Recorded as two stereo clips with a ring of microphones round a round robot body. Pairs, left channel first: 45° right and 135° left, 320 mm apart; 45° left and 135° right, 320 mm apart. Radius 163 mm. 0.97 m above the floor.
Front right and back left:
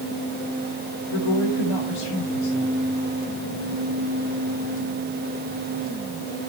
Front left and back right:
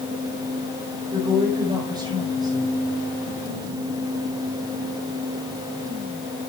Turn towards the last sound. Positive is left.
turn(degrees=-60)